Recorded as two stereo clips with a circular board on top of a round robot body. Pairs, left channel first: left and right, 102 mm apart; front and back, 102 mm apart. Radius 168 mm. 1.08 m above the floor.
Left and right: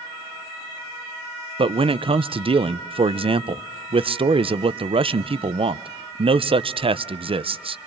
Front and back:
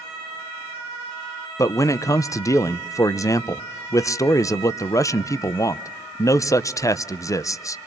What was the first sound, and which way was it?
A man speaking, 60° right.